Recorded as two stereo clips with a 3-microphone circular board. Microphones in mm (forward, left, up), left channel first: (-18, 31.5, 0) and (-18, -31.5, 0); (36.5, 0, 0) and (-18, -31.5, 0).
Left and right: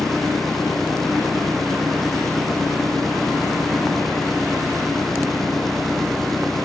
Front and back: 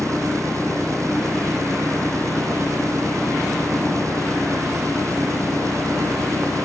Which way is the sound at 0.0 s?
175° left.